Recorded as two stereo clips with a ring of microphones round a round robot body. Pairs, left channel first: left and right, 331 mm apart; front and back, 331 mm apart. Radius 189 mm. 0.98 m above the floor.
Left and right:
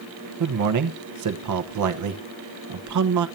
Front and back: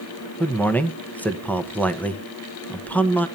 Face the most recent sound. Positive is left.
turn(degrees=-85)